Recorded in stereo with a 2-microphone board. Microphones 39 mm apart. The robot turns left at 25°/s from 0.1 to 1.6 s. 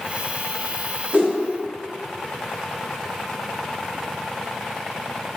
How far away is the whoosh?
About 1.4 m.